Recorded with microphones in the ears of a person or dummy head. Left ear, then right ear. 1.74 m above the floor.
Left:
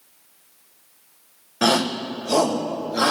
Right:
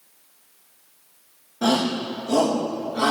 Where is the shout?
65° left (ahead or behind), 1.2 m; by 3.1 s 80° left, 3 m.